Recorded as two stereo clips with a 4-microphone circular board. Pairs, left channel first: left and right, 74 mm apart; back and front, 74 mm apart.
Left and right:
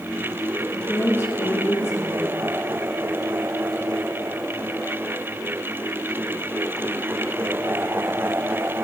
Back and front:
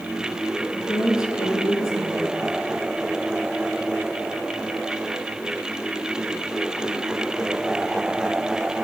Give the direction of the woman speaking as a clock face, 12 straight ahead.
7 o'clock.